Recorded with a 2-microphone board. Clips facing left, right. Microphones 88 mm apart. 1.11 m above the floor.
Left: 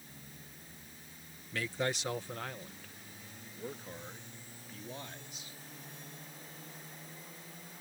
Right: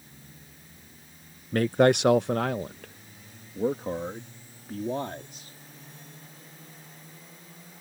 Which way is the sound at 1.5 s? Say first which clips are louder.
Right 15 dB; 45° right (ahead or behind).